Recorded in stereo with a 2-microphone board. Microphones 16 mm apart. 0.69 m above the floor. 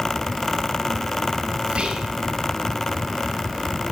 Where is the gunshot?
I don't hear a gunshot.